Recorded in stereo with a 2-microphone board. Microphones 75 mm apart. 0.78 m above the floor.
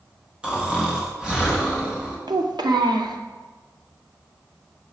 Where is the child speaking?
85° right, 0.7 m.